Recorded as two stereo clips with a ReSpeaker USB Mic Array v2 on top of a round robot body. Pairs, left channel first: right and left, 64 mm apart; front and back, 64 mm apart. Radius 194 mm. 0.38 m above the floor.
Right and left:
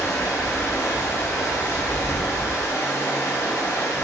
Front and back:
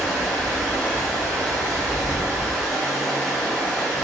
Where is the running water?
80° right, 1.2 m.